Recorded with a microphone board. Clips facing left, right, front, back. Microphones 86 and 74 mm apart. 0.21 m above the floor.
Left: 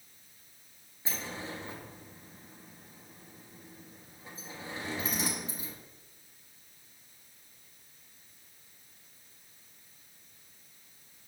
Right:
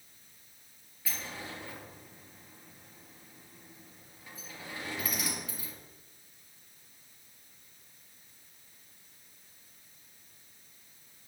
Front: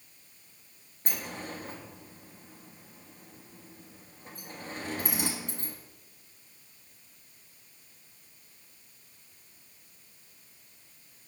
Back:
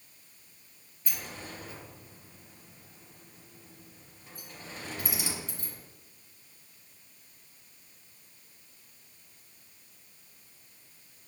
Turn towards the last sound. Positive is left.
turn(degrees=30)